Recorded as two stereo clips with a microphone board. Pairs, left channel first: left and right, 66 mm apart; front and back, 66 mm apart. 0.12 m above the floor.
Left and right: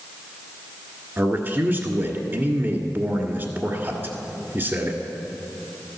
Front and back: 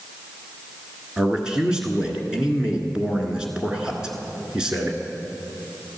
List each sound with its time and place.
1.2 s a man speaking: 110° right, 1.5 m